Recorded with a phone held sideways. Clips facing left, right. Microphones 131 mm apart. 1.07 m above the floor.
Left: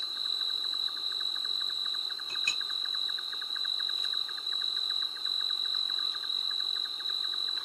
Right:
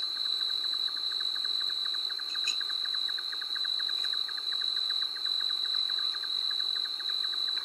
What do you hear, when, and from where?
0.0 s an insect: 10° left (ahead or behind)
2.3 s a clink: 75° left (ahead or behind)